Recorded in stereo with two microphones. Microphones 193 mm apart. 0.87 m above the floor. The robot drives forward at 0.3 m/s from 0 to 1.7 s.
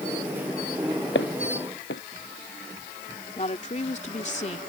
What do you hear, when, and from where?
1.1 s footsteps: 80° left
3.4 s a woman speaking: 40° left (ahead or behind)